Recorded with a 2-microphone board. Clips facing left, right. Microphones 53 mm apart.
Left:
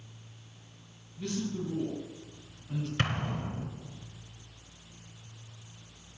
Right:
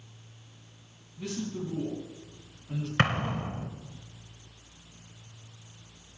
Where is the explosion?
40° right (ahead or behind), 0.8 m.